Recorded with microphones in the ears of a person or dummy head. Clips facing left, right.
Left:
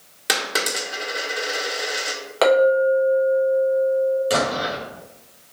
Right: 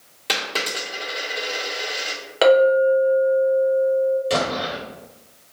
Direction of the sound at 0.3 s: 15° left (ahead or behind).